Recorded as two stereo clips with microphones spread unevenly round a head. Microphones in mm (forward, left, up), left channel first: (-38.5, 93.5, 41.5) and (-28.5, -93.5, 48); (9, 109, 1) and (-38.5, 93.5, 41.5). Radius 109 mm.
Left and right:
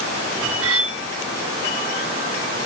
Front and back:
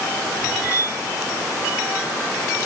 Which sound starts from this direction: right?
Cutlery clinking, at 0.6 s.